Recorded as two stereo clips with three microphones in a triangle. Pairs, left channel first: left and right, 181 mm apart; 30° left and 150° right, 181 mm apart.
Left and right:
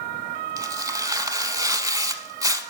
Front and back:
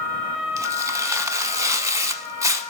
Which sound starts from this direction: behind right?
Tearing paper, at 0.6 s.